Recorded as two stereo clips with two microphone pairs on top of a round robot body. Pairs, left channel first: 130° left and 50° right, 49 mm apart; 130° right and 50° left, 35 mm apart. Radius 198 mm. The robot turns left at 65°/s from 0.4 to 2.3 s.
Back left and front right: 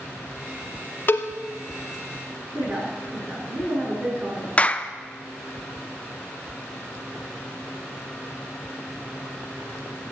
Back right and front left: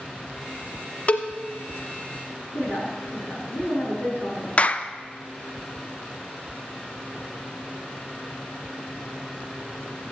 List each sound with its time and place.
1.1 s a cowbell: straight behind, 0.5 m; by 1.3 s 165° left, 0.5 m
2.5 s a woman speaking: 115° right, 6 m
4.6 s a clap: straight behind, 0.8 m